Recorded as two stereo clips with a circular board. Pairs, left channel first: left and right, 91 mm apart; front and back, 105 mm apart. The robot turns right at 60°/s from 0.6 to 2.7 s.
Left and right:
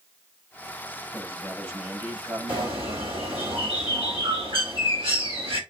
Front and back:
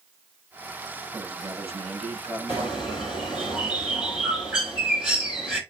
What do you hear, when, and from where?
1.1 s a man speaking: 150° left, 6.5 m; by 2.8 s 115° right, 6.5 m
2.5 s a bird: 115° right, 4.5 m; by 5.6 s 100° right, 4.5 m